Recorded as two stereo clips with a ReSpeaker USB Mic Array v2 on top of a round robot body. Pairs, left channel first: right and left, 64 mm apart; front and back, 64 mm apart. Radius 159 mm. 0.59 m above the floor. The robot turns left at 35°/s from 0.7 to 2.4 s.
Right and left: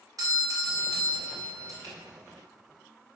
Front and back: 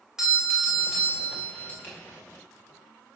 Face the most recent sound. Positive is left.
turn(degrees=40)